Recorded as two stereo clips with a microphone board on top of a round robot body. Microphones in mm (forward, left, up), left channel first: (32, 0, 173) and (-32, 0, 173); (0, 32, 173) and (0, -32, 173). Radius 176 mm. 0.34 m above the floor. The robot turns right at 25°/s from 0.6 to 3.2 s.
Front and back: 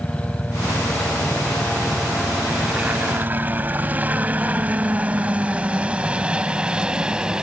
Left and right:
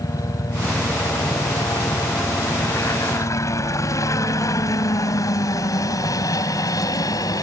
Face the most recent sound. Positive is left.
turn(degrees=105)